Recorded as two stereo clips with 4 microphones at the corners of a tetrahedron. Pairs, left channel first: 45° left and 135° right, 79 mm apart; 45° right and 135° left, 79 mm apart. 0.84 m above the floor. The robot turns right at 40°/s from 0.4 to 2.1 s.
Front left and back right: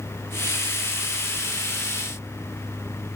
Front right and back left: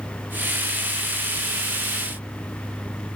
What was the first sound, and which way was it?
Only background noise.